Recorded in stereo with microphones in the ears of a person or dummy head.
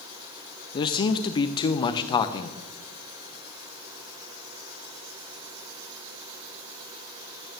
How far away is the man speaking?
About 0.6 m.